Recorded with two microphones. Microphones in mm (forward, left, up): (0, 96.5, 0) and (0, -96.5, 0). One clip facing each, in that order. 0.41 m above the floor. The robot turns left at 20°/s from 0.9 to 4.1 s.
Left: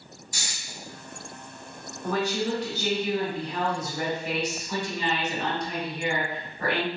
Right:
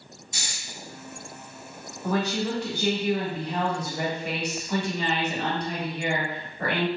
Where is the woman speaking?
45° right, 1.5 m; by 6.9 s 85° right, 1.5 m.